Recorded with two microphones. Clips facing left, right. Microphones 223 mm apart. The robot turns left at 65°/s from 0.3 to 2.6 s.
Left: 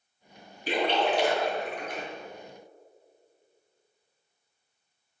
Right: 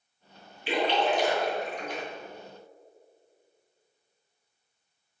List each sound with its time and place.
0.7 s a splash: 40° left (ahead or behind), 2.5 m; by 2.0 s 45° left (ahead or behind), 2.5 m